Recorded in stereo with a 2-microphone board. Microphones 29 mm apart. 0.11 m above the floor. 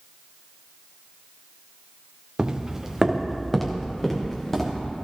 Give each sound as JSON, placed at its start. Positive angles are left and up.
{"t": 2.4, "sound": "footsteps", "side_deg": -30, "distance_m": 1.3}